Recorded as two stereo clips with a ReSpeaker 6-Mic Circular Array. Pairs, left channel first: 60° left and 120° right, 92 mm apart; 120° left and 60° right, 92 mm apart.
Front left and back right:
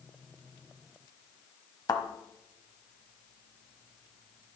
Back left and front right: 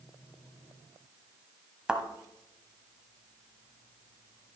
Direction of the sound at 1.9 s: 20° left.